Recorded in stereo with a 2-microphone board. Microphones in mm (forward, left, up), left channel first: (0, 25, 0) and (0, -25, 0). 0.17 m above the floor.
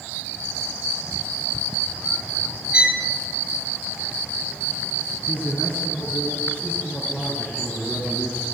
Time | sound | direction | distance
2.7 | a violin | 20° right (ahead or behind) | 1.8 m
5.3 | a man speaking | 20° left (ahead or behind) | 2 m